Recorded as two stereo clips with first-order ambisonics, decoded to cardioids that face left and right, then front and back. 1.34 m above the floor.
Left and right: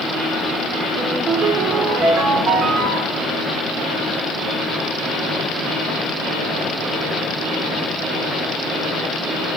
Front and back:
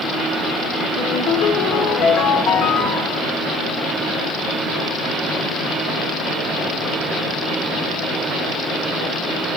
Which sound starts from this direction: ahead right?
A ringtone, at 1.0 s.